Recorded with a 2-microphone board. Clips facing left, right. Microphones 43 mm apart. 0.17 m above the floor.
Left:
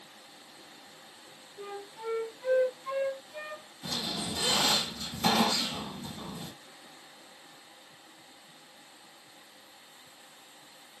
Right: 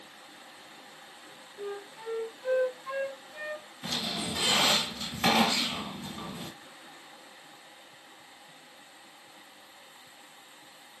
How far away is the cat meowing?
No cat meowing in this recording.